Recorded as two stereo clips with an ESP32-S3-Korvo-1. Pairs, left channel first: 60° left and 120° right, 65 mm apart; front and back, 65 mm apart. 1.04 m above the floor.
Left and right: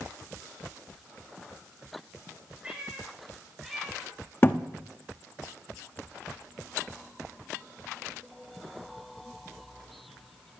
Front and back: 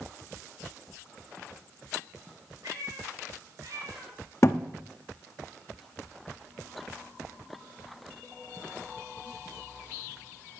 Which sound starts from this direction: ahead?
A thud, at 4.4 s.